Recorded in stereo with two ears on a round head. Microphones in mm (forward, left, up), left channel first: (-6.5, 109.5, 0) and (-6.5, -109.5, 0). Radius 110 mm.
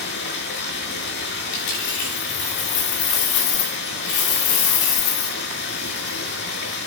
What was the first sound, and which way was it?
Running water, 45° left (ahead or behind).